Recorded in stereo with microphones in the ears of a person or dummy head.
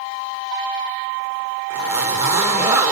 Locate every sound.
1.7 s a zipper: 20° right (ahead or behind), 1.7 m